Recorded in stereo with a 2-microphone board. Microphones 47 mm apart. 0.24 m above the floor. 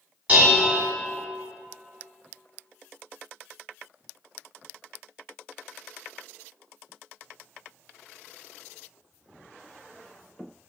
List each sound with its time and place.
0.3 s dishes clattering: 25° right (ahead or behind), 1.3 m